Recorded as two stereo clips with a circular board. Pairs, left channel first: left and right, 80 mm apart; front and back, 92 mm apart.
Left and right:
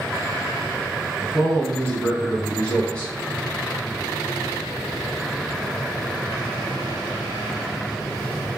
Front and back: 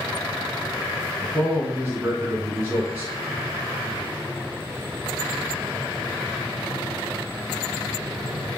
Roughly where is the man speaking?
Behind left.